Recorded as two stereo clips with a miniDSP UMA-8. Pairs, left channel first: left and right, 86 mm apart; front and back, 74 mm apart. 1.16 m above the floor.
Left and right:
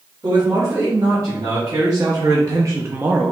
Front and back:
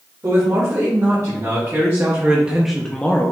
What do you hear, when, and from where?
0.2 s a man speaking: 140° right, 2.0 m; by 3.3 s 20° right, 0.6 m